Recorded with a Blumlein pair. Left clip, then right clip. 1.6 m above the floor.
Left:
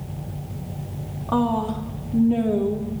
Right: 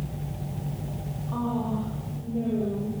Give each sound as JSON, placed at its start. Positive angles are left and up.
{"t": 1.3, "sound": "a woman speaking", "azimuth_deg": 55, "distance_m": 2.5}